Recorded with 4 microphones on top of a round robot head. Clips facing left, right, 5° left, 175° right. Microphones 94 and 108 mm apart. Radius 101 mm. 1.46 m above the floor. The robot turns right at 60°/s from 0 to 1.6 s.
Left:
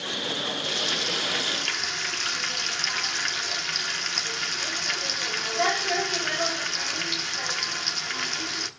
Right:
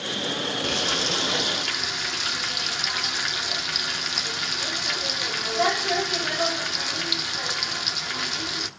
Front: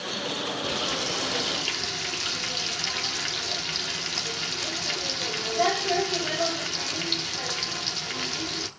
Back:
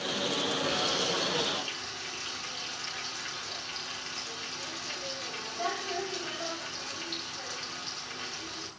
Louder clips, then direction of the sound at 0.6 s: Right 4 dB, front 1 dB; 65° right.